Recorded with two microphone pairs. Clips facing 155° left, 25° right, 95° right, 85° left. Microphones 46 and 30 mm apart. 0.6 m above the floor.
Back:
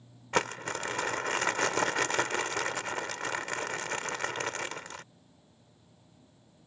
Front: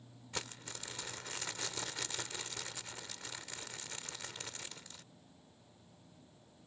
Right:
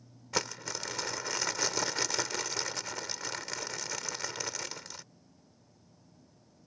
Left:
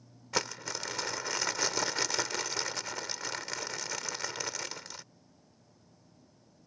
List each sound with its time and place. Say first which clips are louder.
0.3 s crumpling: back 16 dB, left 1 dB; 170° left